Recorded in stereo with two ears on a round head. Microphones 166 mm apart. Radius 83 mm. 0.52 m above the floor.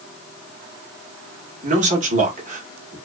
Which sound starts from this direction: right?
A man speaking, at 1.6 s.